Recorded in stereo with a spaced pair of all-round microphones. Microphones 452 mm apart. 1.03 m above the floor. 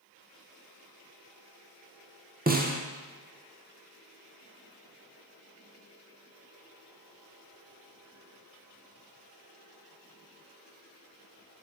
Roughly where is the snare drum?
Right.